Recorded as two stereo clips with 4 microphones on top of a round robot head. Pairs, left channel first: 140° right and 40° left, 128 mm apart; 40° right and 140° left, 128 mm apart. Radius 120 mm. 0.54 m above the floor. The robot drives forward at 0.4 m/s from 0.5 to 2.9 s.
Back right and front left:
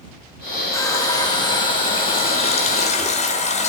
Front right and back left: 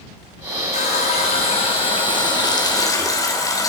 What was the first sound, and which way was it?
A running tap, 75° right.